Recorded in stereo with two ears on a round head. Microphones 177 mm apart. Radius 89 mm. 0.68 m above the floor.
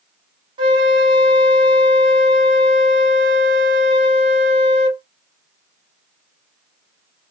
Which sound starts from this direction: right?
A flute, at 0.6 s.